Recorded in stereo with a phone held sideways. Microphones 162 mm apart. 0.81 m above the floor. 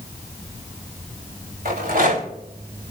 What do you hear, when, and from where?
1.6 s a rattle: 65° right (ahead or behind), 3.5 m